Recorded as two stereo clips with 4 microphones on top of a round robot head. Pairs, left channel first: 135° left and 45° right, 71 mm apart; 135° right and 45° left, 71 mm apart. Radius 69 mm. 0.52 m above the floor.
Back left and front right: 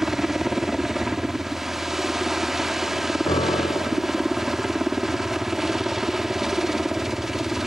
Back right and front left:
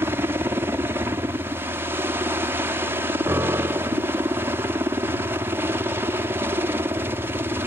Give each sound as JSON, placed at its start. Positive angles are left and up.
{"t": 0.0, "sound": "a helicopter", "azimuth_deg": 35}
{"t": 3.3, "sound": "a piano", "azimuth_deg": 105}